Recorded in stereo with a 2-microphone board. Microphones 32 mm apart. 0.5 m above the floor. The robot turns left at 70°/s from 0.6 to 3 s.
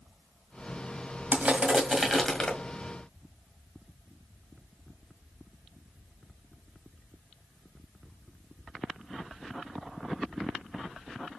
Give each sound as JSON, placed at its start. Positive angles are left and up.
{"t": 1.3, "sound": "crushing", "azimuth_deg": -120, "distance_m": 1.7}